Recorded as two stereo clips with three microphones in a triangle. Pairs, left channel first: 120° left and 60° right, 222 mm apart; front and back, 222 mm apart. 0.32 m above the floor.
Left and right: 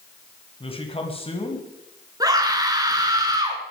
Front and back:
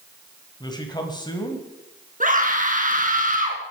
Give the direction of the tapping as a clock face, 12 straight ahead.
No tapping in this recording.